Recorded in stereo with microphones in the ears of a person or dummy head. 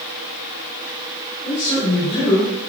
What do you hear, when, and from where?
1.4 s a man speaking: 30° left (ahead or behind), 6.5 m; by 2.5 s 35° left (ahead or behind), 6 m